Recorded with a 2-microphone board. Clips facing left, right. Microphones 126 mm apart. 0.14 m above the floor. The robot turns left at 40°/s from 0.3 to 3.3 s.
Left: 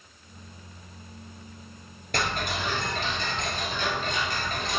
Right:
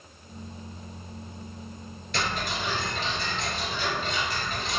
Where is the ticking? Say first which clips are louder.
Left 1 dB; 115° left, 1.8 m; by 4.8 s 70° left, 1.8 m.